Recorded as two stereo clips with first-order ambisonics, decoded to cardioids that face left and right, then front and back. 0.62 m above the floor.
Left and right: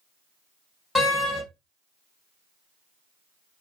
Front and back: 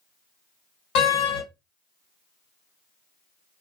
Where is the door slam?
10° left, 1.5 m.